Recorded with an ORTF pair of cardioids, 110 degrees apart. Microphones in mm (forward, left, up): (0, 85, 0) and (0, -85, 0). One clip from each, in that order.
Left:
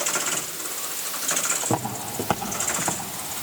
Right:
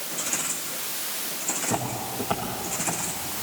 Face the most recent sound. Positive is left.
turn(degrees=50)